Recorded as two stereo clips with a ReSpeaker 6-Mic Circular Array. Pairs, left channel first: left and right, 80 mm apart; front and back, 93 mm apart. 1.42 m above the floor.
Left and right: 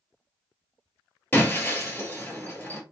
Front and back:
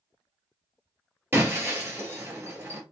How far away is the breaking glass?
About 1.5 m.